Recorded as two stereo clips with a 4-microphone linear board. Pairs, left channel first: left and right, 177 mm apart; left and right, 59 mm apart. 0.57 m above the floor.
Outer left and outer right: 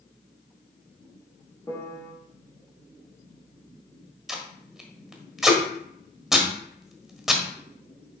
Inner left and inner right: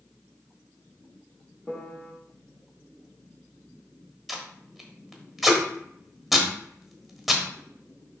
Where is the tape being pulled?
Centre (ahead or behind), 1.4 m.